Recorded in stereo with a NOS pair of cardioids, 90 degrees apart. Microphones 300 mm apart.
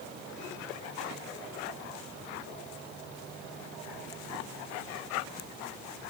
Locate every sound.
Only background noise.